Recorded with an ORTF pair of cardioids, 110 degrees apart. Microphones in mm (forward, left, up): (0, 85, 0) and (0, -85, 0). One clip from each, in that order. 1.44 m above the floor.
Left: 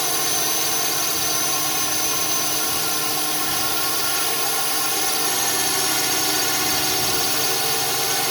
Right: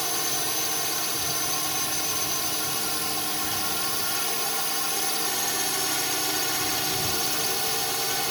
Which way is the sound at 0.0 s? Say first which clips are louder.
Left 5 dB; 30° left.